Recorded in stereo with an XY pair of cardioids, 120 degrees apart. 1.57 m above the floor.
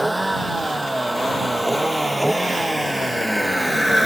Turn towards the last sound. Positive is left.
turn(degrees=5)